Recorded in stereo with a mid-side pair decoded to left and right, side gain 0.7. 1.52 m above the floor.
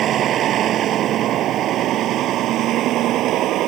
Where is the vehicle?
45° right; by 3.7 s 55° right.